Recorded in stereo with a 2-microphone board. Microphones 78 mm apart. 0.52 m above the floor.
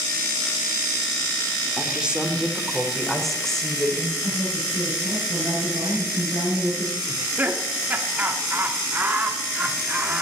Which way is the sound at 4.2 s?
80° right.